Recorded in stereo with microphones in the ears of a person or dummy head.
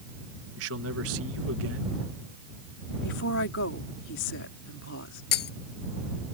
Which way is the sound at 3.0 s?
65° left (ahead or behind).